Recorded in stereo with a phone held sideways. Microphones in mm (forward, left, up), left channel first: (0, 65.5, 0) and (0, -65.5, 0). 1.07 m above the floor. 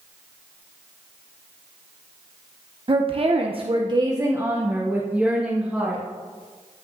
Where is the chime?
No chime in this recording.